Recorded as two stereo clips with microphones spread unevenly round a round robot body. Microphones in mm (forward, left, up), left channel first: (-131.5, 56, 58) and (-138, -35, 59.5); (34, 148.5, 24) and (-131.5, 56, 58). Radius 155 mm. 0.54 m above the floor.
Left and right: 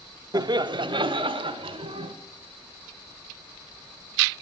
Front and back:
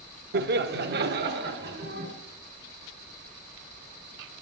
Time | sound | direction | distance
0.3 | laughter | 120° right | 1.1 m